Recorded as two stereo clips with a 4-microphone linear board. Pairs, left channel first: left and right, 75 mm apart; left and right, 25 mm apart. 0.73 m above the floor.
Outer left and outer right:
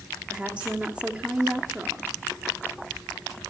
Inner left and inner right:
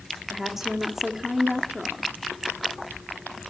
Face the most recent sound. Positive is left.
turn(degrees=-15)  # may be behind; listen again after turning